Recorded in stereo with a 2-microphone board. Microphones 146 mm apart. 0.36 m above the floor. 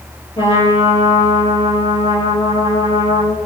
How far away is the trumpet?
About 4 m.